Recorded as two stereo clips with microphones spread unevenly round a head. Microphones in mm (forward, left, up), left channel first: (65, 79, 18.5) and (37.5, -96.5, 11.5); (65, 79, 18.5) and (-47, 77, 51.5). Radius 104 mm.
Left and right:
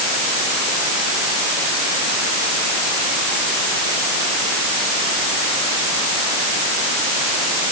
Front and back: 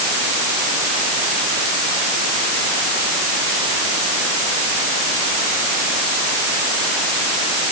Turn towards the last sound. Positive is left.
No sound to turn to.